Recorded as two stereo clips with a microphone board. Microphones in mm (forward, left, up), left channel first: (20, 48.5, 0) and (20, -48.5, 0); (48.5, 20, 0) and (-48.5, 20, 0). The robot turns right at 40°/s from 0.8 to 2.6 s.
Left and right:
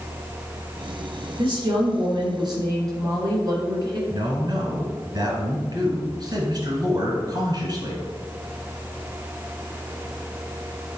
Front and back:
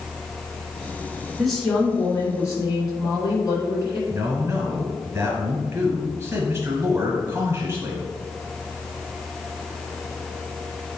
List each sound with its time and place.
1.4 s a woman speaking: 95° right, 2.5 m; by 4.0 s 45° right, 2.5 m
4.1 s a man speaking: 120° right, 1.6 m